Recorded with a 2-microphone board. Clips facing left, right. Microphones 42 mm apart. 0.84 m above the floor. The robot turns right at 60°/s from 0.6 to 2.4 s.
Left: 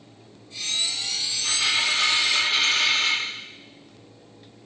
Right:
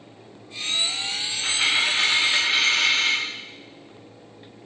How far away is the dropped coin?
About 1.4 m.